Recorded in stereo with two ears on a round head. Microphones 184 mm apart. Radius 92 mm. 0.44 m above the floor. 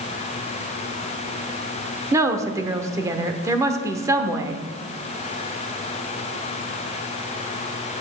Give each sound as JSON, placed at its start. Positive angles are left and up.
{"t": 2.1, "sound": "a woman speaking", "side_deg": -15, "distance_m": 0.8}